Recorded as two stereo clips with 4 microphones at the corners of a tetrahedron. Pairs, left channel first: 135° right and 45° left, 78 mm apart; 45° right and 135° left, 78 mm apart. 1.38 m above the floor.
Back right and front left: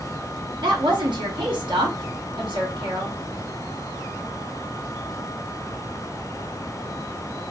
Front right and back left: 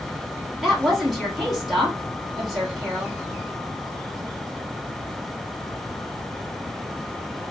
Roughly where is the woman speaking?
Ahead left.